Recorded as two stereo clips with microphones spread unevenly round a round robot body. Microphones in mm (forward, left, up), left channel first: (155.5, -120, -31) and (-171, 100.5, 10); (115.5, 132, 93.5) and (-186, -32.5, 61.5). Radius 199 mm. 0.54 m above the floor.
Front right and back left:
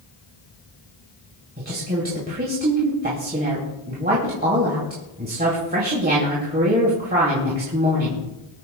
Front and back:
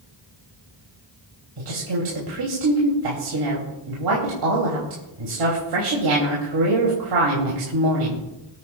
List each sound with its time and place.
1.6 s a woman speaking: 145° right, 3 m